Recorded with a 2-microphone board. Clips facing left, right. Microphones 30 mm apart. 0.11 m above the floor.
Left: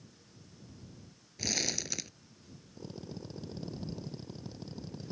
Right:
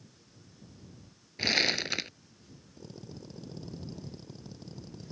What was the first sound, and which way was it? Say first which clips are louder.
Crumpling: right 8 dB; 50° right (ahead or behind).